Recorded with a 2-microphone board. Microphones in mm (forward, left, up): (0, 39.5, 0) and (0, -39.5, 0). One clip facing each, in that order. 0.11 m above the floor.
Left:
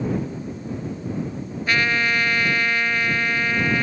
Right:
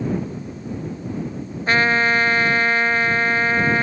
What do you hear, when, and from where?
1.7 s a trumpet: 35° right (ahead or behind)